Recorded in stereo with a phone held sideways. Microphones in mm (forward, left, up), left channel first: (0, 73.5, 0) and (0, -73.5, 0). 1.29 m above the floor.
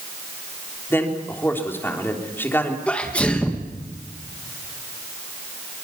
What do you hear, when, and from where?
0.9 s a man speaking: 15° left (ahead or behind), 3.5 m
2.9 s a sneeze: 5° left (ahead or behind), 1.8 m